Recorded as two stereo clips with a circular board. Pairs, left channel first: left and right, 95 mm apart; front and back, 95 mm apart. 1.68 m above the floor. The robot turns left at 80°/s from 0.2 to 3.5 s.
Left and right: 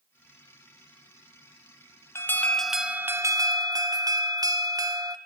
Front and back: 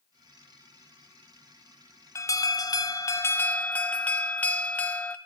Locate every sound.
2.1 s an alarm: 40° left, 0.9 m; by 5.2 s 65° right, 0.9 m